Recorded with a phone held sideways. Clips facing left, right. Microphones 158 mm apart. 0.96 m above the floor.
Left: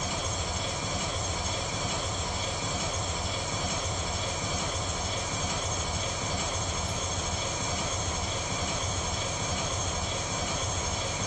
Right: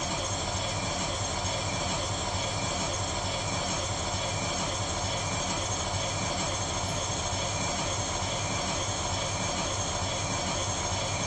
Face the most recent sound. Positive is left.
turn(degrees=-60)  # may be behind; listen again after turning